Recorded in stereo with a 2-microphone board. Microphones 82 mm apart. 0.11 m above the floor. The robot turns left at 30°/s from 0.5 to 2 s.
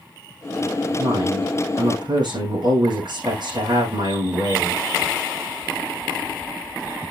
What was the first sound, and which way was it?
A woman speaking, 85° right.